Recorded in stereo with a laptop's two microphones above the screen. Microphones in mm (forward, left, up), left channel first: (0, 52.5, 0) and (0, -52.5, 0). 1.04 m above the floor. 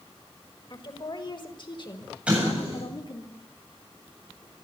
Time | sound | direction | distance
0.7 | a woman speaking | 50° left (ahead or behind) | 5.5 m
2.3 | an explosion | 10° right (ahead or behind) | 7 m